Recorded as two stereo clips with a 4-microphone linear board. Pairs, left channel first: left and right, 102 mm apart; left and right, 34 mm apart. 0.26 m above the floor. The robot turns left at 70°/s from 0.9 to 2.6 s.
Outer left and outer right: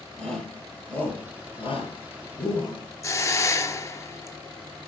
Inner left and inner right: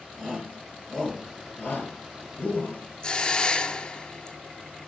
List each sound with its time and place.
0.2 s a shout: 10° left (ahead or behind), 4.5 m; by 2.8 s 50° left (ahead or behind), 4.5 m
3.0 s a hiss: 30° left (ahead or behind), 0.8 m